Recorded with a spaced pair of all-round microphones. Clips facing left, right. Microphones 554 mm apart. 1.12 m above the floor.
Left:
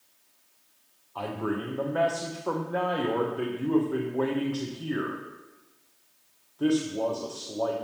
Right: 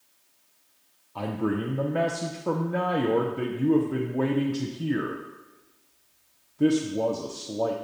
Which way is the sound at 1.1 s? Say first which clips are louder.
Right 3 dB; 50° right (ahead or behind).